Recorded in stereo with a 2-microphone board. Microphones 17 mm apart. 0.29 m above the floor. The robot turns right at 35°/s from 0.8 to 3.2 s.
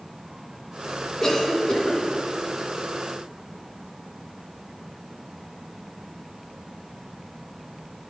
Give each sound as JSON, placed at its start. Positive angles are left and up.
{"t": 1.2, "sound": "a cough", "side_deg": 25, "distance_m": 2.5}